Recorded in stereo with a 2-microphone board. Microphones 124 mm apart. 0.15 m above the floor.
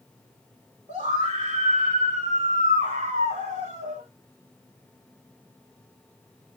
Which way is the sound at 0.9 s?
70° right (ahead or behind).